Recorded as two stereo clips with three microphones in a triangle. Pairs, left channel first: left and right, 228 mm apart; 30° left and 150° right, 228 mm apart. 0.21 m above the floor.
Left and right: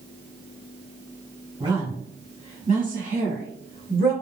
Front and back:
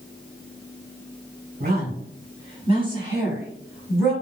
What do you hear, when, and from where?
1.6 s a woman speaking: 150° right, 1.3 m; by 4.1 s 55° right, 1.5 m